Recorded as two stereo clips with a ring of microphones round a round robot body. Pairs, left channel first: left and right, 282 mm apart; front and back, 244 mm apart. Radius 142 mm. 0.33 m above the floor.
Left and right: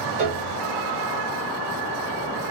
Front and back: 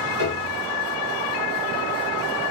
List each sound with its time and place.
0.2 s a piano: 140° right, 1.2 m